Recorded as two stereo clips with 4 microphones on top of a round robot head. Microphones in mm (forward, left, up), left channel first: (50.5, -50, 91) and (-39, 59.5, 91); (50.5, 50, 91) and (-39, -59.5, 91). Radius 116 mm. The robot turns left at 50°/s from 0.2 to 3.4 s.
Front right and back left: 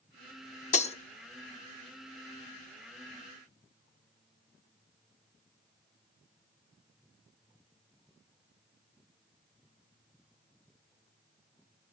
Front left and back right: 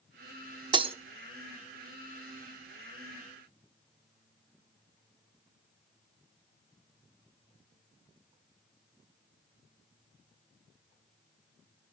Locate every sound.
0.7 s breaking glass: 75° right, 1.0 m; by 0.9 s 85° right, 1.0 m